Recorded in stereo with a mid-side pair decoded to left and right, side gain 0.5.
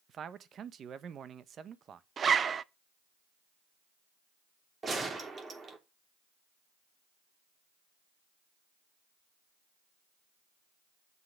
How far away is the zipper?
About 0.6 m.